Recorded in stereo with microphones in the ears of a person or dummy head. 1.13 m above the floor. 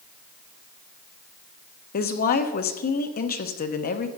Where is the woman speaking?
45° left (ahead or behind), 0.9 m.